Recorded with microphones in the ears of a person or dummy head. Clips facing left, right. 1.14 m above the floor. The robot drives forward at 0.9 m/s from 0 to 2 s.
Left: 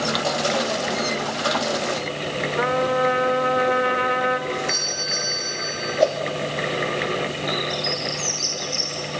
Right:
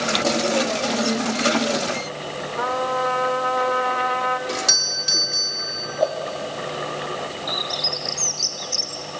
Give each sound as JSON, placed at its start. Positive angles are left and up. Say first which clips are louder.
{"t": 2.6, "sound": "a trumpet", "louder": "left 3 dB", "side_deg": 25, "distance_m": 1.3}
{"t": 4.5, "sound": "a doorbell", "louder": "left 2 dB", "side_deg": -80, "distance_m": 3.5}
{"t": 6.0, "sound": "a whoosh", "louder": "left 2 dB", "side_deg": 40, "distance_m": 1.3}
{"t": 7.5, "sound": "a bird", "louder": "left 4 dB", "side_deg": -20, "distance_m": 1.0}